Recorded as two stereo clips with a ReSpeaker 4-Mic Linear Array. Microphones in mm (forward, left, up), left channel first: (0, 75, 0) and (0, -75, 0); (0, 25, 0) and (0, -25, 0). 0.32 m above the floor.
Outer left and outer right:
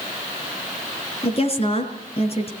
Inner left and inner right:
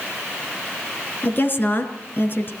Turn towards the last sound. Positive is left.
turn(degrees=40)  # may be behind; listen again after turning